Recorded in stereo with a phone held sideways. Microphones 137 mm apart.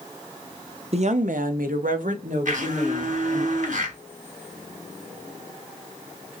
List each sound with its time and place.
0.9 s a woman speaking: 45° right (ahead or behind), 0.5 m; by 3.5 s 55° right (ahead or behind), 1.5 m
2.5 s a blender: 65° right (ahead or behind), 1.2 m